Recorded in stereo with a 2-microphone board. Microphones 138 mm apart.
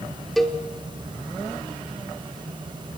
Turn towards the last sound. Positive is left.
turn(degrees=0)  # may be behind; listen again after turning